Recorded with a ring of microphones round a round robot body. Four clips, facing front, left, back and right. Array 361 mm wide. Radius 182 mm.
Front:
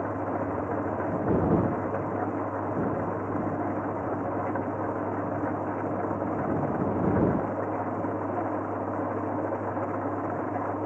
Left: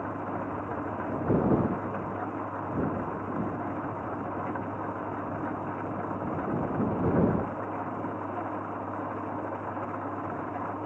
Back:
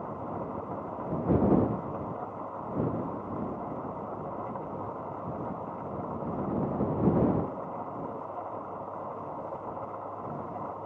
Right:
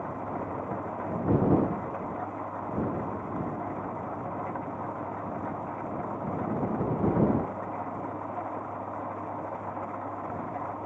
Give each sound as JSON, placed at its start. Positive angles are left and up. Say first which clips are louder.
{"t": 0.0, "sound": "an engine running", "louder": "left 1 dB, front 7 dB", "azimuth_deg": 10}